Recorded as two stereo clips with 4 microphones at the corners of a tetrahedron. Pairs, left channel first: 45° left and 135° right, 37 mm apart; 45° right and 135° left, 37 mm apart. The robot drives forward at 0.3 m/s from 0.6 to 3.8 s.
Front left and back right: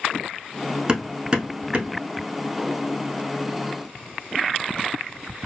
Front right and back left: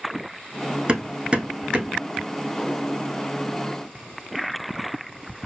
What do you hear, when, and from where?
0.9 s hammering: 175° left, 0.8 m